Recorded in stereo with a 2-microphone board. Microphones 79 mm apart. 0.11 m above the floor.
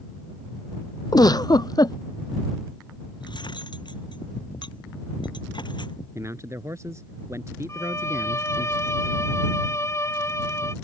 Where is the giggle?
55° left (ahead or behind).